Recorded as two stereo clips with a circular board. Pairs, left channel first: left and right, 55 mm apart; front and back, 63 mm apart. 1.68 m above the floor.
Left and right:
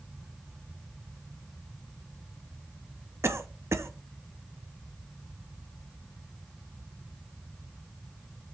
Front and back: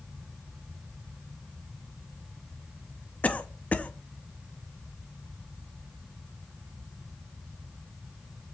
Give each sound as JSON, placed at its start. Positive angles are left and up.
{"t": 3.2, "sound": "a cough", "azimuth_deg": -65, "distance_m": 0.9}